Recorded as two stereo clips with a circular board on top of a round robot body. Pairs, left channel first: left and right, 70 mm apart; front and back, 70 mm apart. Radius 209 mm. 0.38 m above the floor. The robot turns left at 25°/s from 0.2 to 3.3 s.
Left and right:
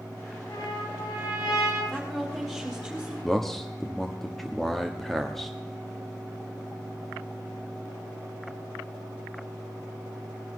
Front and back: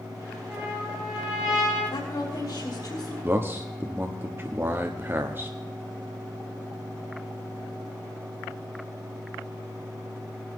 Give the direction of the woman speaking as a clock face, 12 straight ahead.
12 o'clock.